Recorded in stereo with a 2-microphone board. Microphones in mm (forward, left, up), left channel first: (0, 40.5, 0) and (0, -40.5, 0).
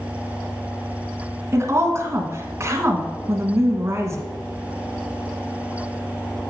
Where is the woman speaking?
35° right (ahead or behind), 1.3 m.